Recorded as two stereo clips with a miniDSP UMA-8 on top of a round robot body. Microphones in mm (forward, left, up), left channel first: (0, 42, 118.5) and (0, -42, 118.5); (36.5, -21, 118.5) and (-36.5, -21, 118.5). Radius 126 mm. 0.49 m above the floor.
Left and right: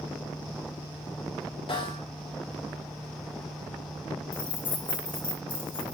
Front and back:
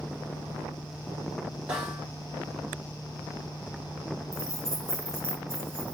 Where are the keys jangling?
115° left, 5 m.